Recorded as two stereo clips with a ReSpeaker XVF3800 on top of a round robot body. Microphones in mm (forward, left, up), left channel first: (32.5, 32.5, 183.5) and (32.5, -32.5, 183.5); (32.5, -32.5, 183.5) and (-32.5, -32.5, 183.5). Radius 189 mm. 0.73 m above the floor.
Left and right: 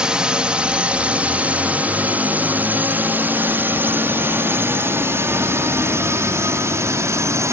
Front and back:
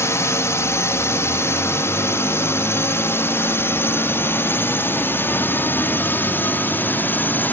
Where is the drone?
15° right; by 7.5 s 55° right.